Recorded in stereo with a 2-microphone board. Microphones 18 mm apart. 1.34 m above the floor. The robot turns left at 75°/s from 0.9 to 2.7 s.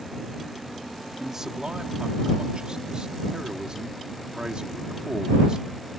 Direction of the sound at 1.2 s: 15° right.